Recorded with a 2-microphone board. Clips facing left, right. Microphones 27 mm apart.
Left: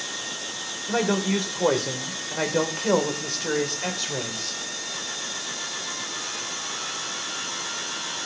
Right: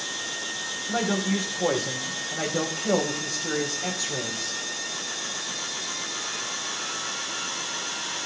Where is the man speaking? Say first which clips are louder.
Left 3 dB; 75° left (ahead or behind), 4 m; by 4.6 s 40° left (ahead or behind), 4 m.